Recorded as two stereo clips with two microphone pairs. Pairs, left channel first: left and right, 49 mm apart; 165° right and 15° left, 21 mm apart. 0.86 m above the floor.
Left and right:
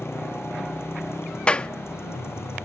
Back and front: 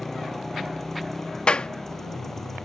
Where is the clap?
155° left.